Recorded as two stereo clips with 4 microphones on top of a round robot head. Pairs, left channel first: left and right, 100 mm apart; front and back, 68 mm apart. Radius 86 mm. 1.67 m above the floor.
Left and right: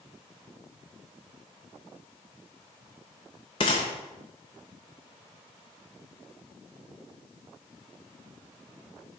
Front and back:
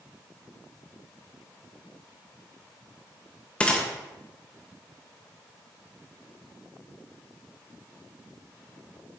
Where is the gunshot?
60° left, 0.6 m.